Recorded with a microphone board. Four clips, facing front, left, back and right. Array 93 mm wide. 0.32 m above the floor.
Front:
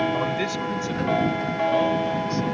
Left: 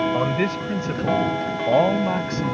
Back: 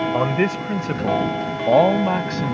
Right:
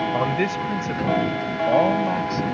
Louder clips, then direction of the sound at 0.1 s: Even, back 5 dB; 165° right.